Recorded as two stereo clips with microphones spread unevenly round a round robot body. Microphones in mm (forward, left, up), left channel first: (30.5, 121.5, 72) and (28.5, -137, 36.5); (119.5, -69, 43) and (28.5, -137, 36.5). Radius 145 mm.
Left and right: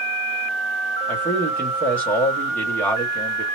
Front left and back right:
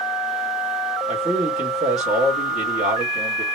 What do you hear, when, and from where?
1.1 s a man speaking: 175° left, 1.4 m